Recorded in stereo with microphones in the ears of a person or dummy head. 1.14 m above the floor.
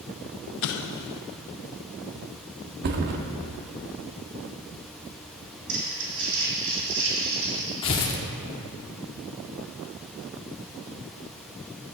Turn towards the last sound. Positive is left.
turn(degrees=30)  # may be behind; listen again after turning